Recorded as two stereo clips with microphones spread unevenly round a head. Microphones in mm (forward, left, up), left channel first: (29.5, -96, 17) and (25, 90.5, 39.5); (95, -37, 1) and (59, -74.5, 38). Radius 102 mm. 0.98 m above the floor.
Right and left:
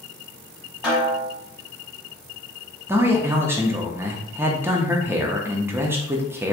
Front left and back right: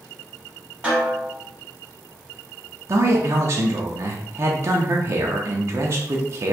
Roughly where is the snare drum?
Behind.